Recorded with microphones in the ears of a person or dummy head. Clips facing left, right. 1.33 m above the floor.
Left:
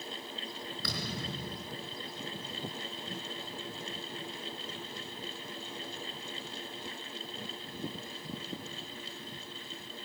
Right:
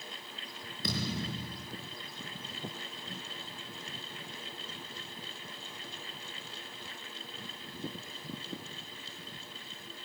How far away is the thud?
About 4 m.